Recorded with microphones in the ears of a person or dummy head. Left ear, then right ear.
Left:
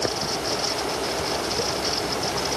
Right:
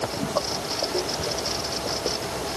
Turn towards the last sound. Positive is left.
No sound to turn to.